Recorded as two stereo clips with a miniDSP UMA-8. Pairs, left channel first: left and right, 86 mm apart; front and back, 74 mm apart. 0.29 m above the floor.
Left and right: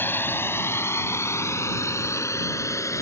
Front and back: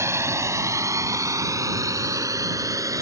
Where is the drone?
150° left; by 3.0 s 145° left.